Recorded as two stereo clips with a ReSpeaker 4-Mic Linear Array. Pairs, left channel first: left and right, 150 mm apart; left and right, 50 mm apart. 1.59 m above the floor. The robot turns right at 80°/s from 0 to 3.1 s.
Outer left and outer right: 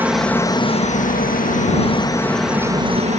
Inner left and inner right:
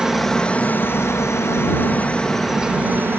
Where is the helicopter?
15° right; by 3.2 s 125° right.